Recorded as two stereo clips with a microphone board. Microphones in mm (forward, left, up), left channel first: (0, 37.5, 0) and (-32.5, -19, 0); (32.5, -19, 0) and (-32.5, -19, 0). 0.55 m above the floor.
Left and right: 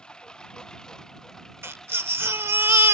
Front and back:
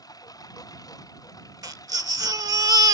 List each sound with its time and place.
0.0 s a lawn mower: 20° right; by 2.9 s 25° right
1.6 s a baby crying: 170° right